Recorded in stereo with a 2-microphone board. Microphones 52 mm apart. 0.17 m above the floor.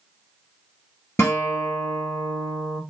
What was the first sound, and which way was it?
A guitar, 55° left (ahead or behind).